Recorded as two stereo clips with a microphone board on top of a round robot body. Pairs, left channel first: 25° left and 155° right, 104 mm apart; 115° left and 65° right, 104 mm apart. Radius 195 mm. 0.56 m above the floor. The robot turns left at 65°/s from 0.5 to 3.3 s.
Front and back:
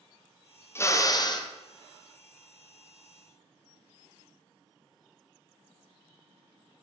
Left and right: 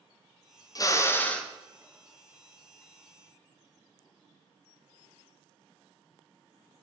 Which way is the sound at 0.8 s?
80° left.